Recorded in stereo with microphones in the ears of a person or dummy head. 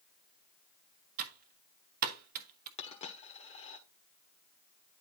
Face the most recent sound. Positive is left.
turn(degrees=35)  # may be behind; listen again after turning